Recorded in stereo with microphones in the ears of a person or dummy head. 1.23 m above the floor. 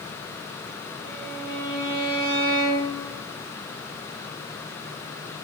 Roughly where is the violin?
Right.